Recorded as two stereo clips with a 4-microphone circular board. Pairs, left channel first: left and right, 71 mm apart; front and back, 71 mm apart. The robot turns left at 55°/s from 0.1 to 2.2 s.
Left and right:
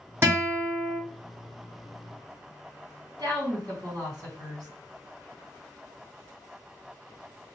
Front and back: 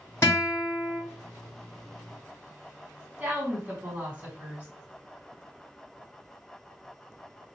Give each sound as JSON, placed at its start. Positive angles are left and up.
{"t": 0.2, "sound": "a guitar", "azimuth_deg": -45, "distance_m": 1.5}
{"t": 3.2, "sound": "a woman speaking", "azimuth_deg": -115, "distance_m": 1.6}